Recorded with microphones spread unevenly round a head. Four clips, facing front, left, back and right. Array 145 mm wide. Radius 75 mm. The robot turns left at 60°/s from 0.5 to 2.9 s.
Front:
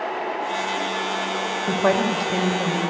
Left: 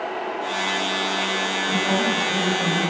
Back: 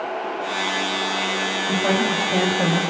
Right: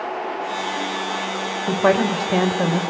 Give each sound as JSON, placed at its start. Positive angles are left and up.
{"t": 1.7, "sound": "a woman speaking", "azimuth_deg": -60, "distance_m": 3.5}